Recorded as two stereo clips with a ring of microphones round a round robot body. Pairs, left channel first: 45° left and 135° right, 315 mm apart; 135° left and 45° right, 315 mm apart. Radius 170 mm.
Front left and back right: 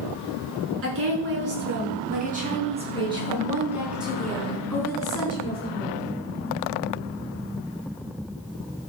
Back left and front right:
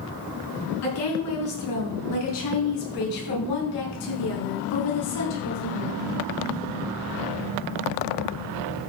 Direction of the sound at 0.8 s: 175° left.